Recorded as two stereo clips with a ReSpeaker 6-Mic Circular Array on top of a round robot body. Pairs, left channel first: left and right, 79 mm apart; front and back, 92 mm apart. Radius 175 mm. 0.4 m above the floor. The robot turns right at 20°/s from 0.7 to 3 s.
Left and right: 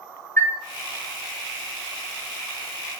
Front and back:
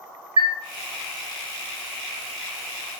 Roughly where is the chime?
Behind left.